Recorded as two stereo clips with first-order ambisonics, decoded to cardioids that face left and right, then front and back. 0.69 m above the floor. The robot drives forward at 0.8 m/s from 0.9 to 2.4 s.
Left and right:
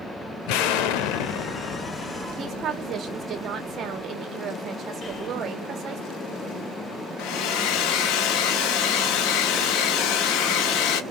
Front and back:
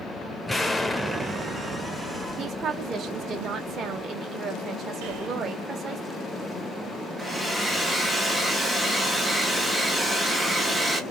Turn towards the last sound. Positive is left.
turn(degrees=100)